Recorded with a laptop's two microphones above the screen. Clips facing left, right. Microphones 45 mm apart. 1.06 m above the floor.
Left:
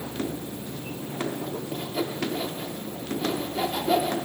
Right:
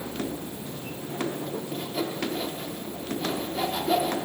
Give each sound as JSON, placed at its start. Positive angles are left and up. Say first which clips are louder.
{"t": 1.7, "sound": "sawing", "louder": "left 1 dB", "side_deg": 10, "distance_m": 1.1}